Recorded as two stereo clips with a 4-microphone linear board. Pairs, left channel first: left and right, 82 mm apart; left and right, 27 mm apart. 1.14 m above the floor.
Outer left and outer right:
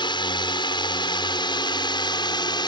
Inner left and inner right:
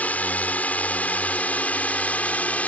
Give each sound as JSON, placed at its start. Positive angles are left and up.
{"t": 0.0, "sound": "a drone", "side_deg": 70}